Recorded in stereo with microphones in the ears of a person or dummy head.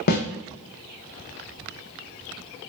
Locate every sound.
0.1 s a snare drum: 50° left (ahead or behind), 0.5 m